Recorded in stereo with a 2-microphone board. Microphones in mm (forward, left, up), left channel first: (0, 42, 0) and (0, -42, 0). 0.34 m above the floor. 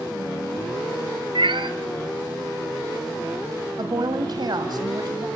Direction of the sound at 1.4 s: 80° right.